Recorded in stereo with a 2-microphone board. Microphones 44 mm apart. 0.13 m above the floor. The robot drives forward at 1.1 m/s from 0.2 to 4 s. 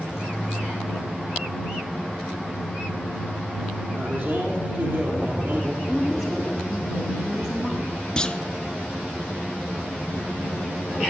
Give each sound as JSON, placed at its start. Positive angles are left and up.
{"t": 3.9, "sound": "a man speaking", "side_deg": -60, "distance_m": 3.5}
{"t": 5.9, "sound": "a woman speaking", "side_deg": -15, "distance_m": 4.5}
{"t": 8.2, "sound": "a clunk", "side_deg": 20, "distance_m": 0.7}